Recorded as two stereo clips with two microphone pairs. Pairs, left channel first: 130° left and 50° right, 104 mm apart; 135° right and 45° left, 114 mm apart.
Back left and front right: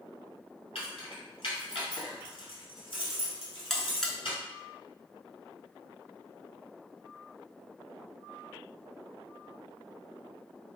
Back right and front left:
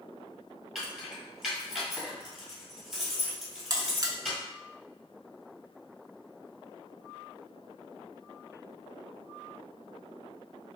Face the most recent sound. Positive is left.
turn(degrees=50)